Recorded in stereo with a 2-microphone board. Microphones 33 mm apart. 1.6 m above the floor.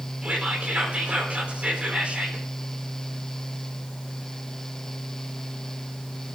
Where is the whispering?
45° right (ahead or behind), 4.5 m.